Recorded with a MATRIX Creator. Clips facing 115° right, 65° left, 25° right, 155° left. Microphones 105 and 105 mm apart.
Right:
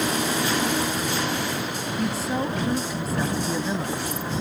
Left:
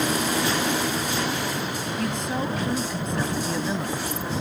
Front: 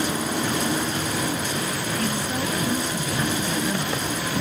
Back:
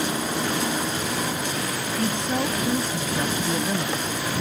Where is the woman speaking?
170° left.